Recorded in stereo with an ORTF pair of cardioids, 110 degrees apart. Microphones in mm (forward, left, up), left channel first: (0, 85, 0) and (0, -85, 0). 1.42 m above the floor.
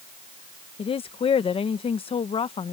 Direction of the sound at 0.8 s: 35° left.